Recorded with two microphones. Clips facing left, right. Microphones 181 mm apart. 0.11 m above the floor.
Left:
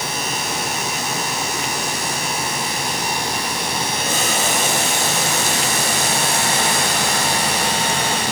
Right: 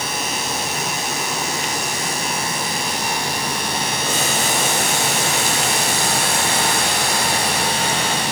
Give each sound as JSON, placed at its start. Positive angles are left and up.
{"t": 4.0, "sound": "boiling", "side_deg": 20, "distance_m": 7.0}